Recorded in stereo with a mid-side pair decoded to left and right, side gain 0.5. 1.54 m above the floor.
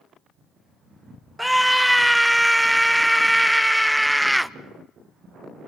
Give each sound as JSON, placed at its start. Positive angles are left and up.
{"t": 1.4, "sound": "a scream", "azimuth_deg": 0, "distance_m": 1.0}